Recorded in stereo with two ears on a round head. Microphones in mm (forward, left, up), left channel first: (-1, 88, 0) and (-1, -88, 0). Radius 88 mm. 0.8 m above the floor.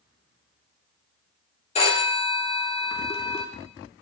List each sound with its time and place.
1.8 s a phone ringing: 30° left (ahead or behind), 1.6 m